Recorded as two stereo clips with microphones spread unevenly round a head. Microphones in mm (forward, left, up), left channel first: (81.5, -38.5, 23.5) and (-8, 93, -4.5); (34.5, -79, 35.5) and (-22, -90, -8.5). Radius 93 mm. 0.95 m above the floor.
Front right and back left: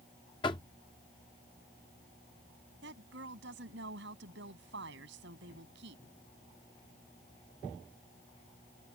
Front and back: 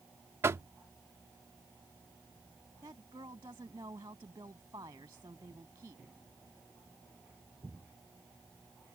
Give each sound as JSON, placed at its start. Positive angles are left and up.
{"t": 0.4, "sound": "knocking", "azimuth_deg": -125}
{"t": 2.8, "sound": "a woman speaking", "azimuth_deg": 135}